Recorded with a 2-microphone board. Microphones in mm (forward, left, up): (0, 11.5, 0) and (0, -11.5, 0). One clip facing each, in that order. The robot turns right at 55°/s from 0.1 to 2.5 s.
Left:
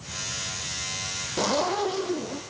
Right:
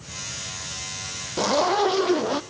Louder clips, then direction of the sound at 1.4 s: Right 5 dB; 175° right.